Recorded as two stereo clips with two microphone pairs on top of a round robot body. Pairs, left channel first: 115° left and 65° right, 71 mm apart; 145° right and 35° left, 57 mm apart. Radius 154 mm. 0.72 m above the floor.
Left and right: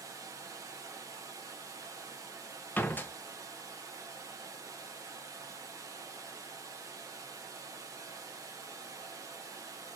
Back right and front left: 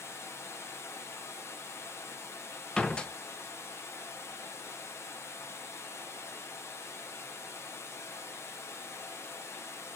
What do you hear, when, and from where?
0.0 s running water: 110° right, 0.8 m
2.8 s a door slam: 155° left, 0.7 m